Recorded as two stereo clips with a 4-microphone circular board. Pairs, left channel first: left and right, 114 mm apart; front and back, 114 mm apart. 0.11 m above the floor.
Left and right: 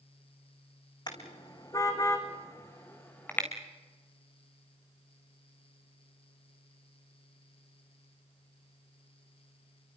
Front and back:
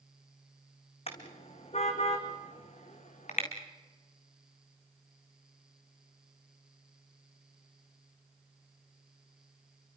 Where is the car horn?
35° left, 3 m; by 3.5 s 15° left, 3.5 m.